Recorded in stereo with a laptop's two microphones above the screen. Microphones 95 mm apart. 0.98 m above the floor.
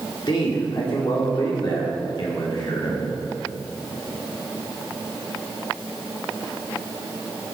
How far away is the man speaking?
About 2.5 m.